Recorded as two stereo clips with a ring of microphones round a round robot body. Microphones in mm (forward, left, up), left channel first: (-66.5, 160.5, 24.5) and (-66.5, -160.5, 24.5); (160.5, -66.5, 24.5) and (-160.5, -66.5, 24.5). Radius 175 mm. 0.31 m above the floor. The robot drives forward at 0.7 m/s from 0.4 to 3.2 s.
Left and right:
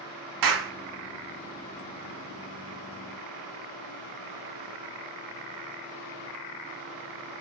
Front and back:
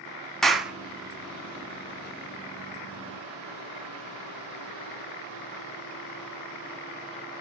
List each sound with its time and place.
0.4 s a clap: 90° right, 3 m; by 0.7 s 95° right, 3 m